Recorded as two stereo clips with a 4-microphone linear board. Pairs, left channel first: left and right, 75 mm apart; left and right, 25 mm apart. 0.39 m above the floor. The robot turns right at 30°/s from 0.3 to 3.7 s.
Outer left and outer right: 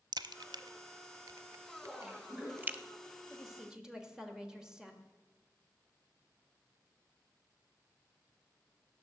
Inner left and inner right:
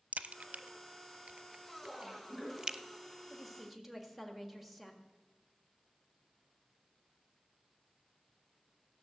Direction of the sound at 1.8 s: 175° right.